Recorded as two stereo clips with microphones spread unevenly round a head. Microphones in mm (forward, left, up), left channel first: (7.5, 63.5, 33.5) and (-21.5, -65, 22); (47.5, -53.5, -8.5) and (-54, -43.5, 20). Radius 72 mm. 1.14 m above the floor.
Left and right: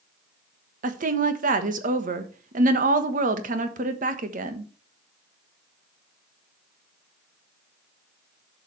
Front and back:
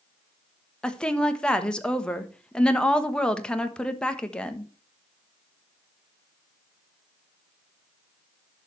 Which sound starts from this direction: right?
A woman speaking, at 0.8 s.